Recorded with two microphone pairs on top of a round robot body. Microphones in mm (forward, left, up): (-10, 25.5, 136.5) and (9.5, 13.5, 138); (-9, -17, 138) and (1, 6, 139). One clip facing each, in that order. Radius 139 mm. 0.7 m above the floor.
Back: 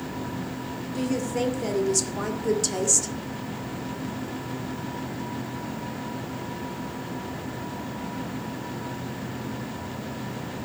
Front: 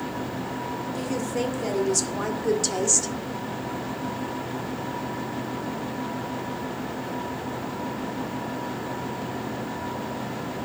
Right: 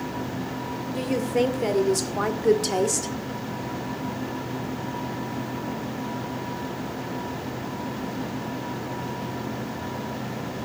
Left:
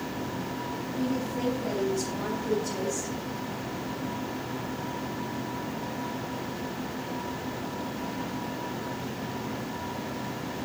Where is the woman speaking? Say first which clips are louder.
Back 3 dB, right 7 dB; 125° right, 2.5 m; by 3.1 s 110° right, 1.4 m.